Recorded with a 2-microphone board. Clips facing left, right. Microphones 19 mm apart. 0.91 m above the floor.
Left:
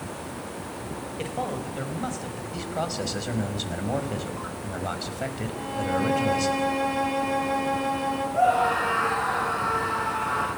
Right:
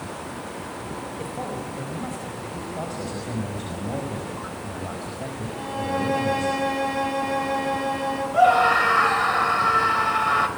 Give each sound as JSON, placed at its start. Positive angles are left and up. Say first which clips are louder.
{"t": 1.2, "sound": "a man speaking", "louder": "left 3 dB", "side_deg": 45, "distance_m": 4.5}
{"t": 2.5, "sound": "a man speaking", "louder": "left 4 dB", "side_deg": 85, "distance_m": 5.0}
{"t": 5.5, "sound": "a violin", "louder": "right 2 dB", "side_deg": -15, "distance_m": 7.5}
{"t": 8.3, "sound": "a scream", "louder": "right 5 dB", "side_deg": -65, "distance_m": 5.0}